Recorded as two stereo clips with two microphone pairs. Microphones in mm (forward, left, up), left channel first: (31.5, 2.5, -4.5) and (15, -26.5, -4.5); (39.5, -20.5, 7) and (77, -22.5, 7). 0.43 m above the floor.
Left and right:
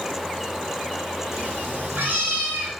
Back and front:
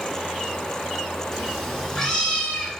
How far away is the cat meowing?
About 1.8 m.